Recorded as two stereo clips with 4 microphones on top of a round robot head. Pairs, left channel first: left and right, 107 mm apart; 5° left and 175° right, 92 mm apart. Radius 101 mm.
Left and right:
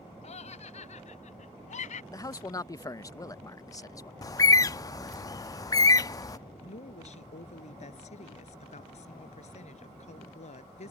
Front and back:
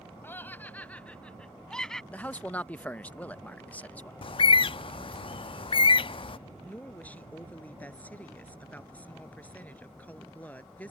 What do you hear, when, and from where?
0.2 s laughter: 70° left; by 2.0 s 90° left
2.1 s a man speaking: 65° left
4.2 s a bird: 30° left
6.6 s a woman speaking: 75° left